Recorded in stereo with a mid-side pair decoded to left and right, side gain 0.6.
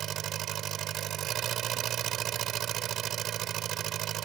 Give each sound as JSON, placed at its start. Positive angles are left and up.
{"t": 0.0, "sound": "an engine running", "azimuth_deg": -55}